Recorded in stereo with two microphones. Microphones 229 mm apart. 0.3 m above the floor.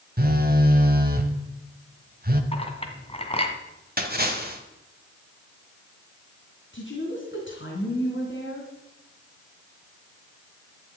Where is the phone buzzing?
40° right (ahead or behind), 1.3 m.